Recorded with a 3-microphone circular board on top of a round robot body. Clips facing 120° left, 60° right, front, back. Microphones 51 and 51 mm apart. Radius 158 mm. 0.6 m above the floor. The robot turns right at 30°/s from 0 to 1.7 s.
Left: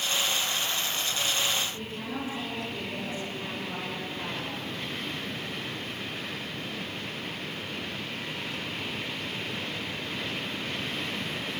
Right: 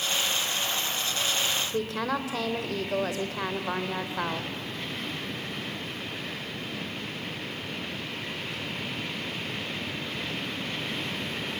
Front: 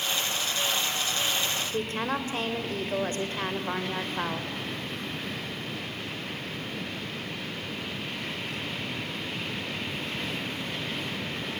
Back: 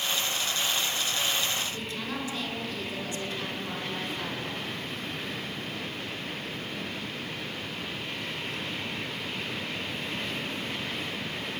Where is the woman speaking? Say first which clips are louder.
Right 7 dB, front 5 dB; 55° right, 2.5 m.